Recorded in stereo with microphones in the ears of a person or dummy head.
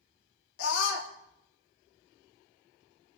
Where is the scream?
70° left (ahead or behind), 2.5 m.